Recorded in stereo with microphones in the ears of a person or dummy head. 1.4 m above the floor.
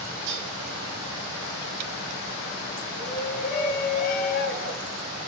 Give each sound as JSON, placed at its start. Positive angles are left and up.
{"t": 0.3, "sound": "dishes clattering", "side_deg": -55, "distance_m": 8.0}
{"t": 3.0, "sound": "a shout", "side_deg": 60, "distance_m": 5.0}